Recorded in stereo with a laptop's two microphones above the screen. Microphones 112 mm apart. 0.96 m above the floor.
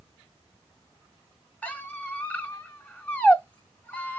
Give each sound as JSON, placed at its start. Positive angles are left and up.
{"t": 1.6, "sound": "a squeak", "side_deg": 15, "distance_m": 0.9}